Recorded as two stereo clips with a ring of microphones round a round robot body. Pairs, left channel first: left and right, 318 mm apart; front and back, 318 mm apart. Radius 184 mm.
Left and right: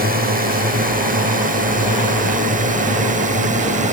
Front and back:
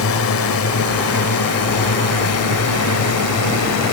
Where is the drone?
35° right; by 4.0 s 25° right.